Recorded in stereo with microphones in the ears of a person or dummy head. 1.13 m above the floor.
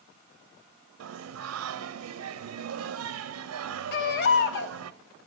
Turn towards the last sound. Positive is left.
turn(degrees=65)  # may be behind; listen again after turning